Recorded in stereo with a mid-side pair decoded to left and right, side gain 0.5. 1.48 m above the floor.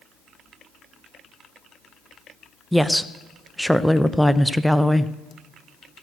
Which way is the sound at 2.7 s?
Straight ahead.